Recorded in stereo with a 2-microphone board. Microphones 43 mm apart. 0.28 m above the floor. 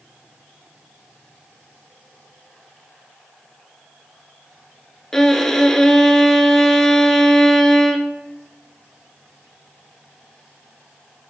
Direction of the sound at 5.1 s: 10° left (ahead or behind).